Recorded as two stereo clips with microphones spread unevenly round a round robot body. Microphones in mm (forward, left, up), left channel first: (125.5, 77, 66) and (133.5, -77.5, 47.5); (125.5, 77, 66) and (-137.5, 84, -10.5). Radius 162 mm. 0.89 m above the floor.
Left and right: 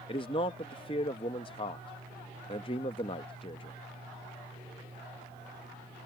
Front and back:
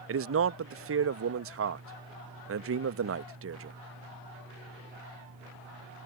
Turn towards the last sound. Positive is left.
turn(degrees=160)